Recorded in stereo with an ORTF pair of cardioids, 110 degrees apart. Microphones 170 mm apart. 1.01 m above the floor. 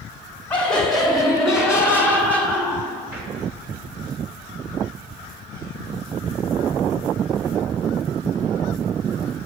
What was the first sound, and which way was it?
Laughter, 10° left.